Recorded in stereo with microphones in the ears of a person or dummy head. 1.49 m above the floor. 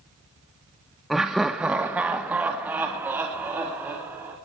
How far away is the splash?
No splash in this recording.